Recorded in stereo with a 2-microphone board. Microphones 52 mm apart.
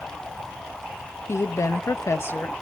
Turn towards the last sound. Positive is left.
turn(degrees=35)  # may be behind; listen again after turning